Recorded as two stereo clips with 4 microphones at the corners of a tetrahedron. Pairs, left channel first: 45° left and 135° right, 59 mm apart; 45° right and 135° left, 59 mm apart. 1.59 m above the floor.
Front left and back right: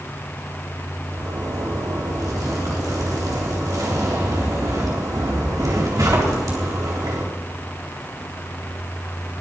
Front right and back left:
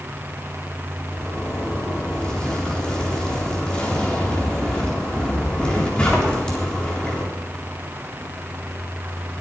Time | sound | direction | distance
1.1 | a zipper | 120° right | 4 m